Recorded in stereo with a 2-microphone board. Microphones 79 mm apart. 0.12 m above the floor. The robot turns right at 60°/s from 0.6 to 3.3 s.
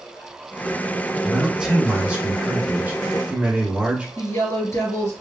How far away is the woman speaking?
About 1.8 m.